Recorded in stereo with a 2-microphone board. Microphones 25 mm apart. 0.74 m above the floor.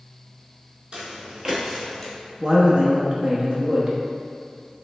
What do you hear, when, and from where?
0.9 s footsteps: 35° right (ahead or behind), 1.2 m; by 2.1 s 15° left (ahead or behind), 0.9 m
2.4 s a man speaking: 30° right (ahead or behind), 0.7 m